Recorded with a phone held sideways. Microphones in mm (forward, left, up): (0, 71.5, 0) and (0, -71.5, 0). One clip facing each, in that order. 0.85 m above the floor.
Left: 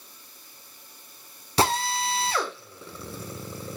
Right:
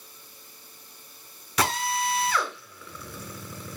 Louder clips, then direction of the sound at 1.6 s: Left 2 dB; 30° left (ahead or behind).